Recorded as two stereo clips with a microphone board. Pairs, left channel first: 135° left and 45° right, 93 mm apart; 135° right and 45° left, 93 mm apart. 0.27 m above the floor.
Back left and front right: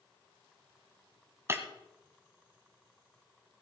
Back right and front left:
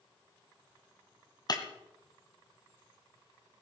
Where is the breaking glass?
100° right, 1.4 m.